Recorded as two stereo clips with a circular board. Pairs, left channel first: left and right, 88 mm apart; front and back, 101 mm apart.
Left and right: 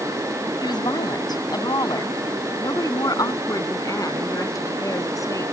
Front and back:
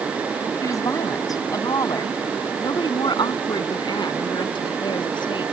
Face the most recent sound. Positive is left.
turn(degrees=35)